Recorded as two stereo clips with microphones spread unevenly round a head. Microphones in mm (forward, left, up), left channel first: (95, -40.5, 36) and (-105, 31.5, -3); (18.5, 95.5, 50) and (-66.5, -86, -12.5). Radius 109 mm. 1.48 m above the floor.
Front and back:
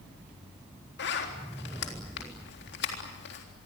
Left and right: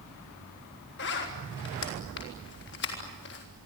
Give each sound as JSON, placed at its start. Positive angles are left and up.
{"t": 1.0, "sound": "a zipper", "azimuth_deg": 25, "distance_m": 4.0}